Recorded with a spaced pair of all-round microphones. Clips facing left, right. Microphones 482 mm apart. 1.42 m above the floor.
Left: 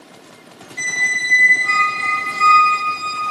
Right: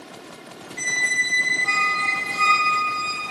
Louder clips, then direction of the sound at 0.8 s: Left 1 dB; 55° right (ahead or behind).